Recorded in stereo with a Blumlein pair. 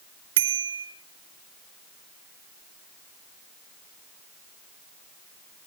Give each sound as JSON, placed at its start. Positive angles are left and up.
{"t": 0.4, "sound": "a bicycle bell", "azimuth_deg": -55, "distance_m": 3.0}